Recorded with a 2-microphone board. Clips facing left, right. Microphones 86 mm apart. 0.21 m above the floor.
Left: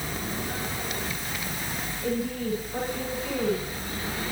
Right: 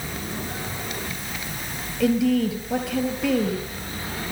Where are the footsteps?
No footsteps in this recording.